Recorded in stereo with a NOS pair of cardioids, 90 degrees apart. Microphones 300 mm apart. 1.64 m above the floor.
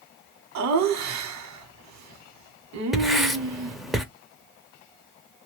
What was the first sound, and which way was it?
Laughter, 65° right.